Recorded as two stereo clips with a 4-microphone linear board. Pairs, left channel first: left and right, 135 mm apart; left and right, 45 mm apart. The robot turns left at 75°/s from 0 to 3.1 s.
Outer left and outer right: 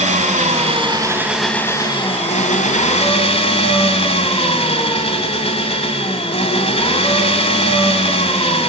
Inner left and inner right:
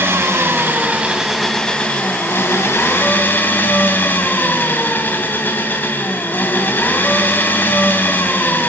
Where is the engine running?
75° right, 2 m; by 8.7 s 55° left, 2 m.